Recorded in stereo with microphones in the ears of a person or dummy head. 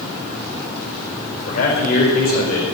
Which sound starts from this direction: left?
A man speaking, at 1.5 s.